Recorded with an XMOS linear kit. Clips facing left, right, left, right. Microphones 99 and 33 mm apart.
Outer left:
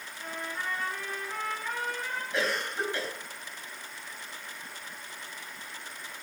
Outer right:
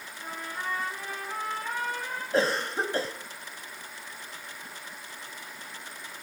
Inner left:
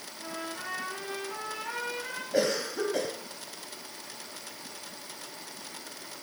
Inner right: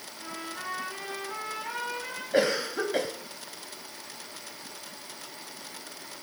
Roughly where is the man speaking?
No man speaking in this recording.